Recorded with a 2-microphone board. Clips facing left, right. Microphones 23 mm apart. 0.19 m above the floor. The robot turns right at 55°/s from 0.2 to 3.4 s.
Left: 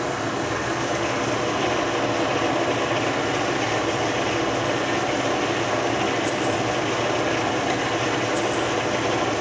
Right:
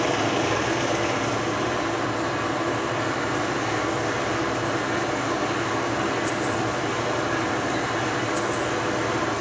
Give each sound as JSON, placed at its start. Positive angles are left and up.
{"t": 0.0, "sound": "an engine running", "azimuth_deg": -45, "distance_m": 3.0}